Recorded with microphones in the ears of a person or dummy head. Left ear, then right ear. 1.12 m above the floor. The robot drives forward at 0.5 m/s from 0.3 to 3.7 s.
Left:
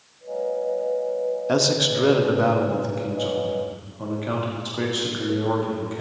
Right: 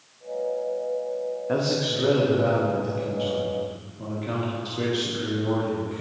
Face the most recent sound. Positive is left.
turn(degrees=40)  # may be behind; listen again after turning